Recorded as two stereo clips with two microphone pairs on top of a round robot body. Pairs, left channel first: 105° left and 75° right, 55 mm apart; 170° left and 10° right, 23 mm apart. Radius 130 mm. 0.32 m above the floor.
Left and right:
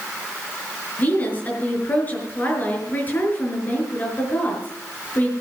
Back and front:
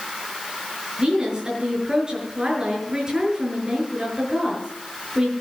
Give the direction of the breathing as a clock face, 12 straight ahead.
No breathing in this recording.